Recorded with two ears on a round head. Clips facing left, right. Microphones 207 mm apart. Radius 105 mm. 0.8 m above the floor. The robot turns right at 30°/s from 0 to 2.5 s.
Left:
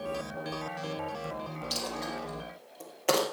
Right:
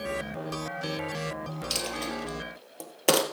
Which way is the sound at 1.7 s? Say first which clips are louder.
Right 2 dB; 35° right (ahead or behind).